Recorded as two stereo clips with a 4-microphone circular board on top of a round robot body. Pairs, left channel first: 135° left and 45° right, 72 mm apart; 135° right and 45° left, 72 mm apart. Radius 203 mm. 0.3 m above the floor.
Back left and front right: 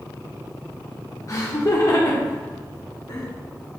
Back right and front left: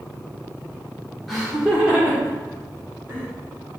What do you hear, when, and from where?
1.3 s laughter: 135° left, 2.0 m; by 3.3 s 105° left, 3 m